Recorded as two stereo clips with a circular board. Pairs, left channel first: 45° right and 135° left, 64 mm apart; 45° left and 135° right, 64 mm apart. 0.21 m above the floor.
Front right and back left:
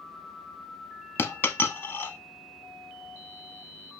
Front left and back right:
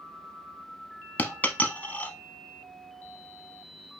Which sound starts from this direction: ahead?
A dropped coin, at 1.2 s.